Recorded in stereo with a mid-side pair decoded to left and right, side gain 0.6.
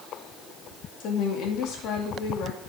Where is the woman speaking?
60° left, 4 m.